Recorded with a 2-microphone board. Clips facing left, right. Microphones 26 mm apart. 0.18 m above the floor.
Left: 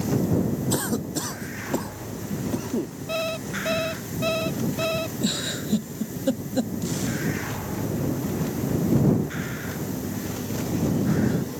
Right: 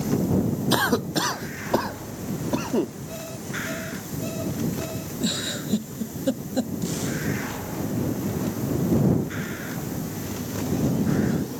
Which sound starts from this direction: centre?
A giggle, at 5.2 s.